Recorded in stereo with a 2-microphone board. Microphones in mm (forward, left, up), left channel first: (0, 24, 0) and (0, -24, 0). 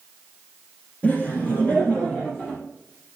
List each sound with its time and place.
1.0 s laughter: 25° left (ahead or behind), 2.5 m; by 2.6 s 10° right (ahead or behind), 2.5 m